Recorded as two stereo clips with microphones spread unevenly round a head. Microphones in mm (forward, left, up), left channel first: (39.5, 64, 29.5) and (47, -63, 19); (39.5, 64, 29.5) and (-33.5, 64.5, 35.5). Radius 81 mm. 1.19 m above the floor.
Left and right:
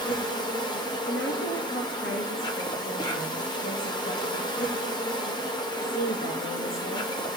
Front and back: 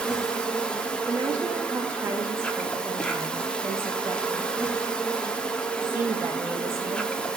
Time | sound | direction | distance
0.0 | an insect | 60° left | 1.4 m
1.1 | a woman speaking | 125° left | 1.3 m